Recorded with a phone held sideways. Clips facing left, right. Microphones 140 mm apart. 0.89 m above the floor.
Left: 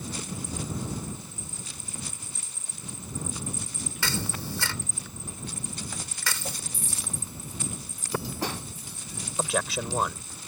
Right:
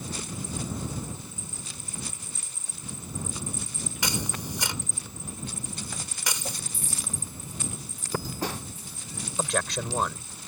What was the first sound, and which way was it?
A camera shutter, 20° right (ahead or behind).